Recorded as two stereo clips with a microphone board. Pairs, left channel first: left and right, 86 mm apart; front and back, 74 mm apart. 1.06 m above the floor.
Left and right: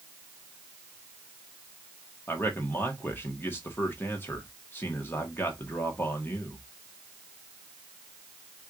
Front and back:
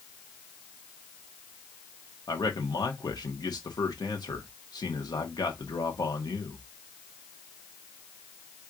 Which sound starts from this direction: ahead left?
A man speaking, at 2.3 s.